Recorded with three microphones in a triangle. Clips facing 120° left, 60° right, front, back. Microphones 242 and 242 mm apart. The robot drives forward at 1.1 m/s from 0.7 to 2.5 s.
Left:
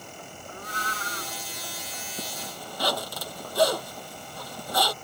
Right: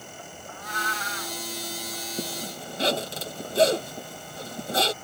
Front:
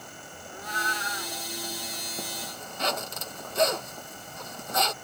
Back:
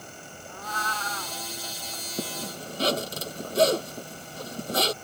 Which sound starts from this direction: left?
A cat meowing, at 0.5 s.